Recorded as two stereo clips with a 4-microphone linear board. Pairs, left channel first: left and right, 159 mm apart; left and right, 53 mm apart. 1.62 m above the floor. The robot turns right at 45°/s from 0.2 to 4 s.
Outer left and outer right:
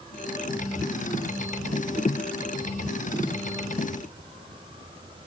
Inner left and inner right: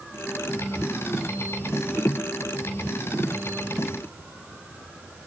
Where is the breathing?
No breathing in this recording.